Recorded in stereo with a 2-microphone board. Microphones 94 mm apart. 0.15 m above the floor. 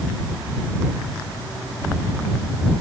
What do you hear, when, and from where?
Only background noise.